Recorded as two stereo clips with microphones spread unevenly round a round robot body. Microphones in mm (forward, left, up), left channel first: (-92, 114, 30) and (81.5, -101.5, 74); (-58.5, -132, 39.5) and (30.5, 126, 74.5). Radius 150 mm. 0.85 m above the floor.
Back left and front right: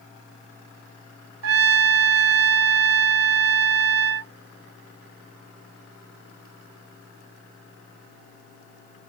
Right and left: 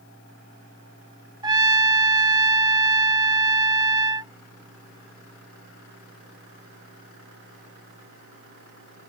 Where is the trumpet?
5° right.